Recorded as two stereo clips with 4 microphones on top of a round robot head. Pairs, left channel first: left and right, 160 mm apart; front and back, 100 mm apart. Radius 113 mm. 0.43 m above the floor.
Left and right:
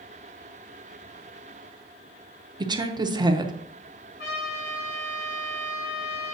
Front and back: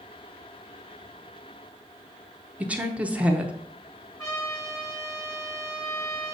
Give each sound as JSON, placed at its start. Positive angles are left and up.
{"t": 2.6, "sound": "a woman speaking", "azimuth_deg": -115, "distance_m": 0.8}
{"t": 4.2, "sound": "a trumpet", "azimuth_deg": 60, "distance_m": 3.5}